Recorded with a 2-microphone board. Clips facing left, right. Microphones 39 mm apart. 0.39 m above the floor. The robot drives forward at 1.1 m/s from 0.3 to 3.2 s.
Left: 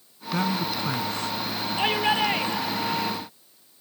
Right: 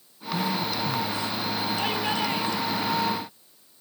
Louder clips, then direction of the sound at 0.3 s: Left 1 dB; 65° left (ahead or behind).